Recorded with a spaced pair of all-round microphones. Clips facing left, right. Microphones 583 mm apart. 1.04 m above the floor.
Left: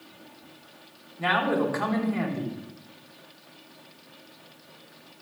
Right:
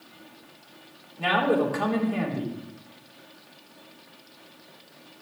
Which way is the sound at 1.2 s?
55° right (ahead or behind).